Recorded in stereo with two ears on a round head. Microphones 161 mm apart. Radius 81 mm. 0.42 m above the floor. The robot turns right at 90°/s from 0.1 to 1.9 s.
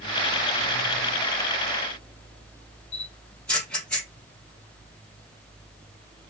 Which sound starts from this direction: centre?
A camera shutter, at 2.9 s.